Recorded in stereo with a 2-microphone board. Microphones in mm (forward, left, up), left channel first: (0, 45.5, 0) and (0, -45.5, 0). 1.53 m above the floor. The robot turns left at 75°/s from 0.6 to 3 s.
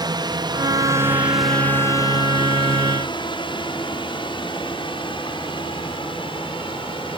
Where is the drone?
50° right (ahead or behind); by 7.2 s 65° left (ahead or behind).